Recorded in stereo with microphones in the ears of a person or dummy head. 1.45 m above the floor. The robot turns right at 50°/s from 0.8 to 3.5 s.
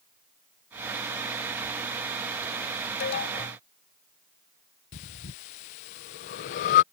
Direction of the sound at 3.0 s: 65° left (ahead or behind).